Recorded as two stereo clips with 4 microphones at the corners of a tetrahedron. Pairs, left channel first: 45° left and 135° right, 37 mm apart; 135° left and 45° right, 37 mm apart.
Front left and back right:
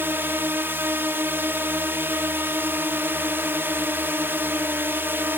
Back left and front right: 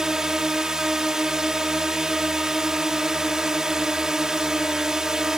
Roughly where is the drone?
Behind right.